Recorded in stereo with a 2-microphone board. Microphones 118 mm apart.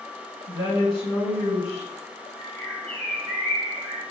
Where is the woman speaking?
45° left (ahead or behind), 1.5 m.